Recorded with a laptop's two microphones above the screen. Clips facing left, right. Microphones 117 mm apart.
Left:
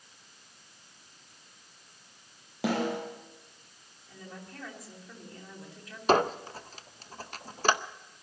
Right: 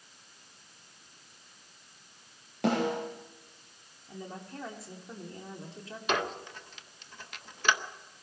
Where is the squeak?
35° left (ahead or behind), 0.6 m.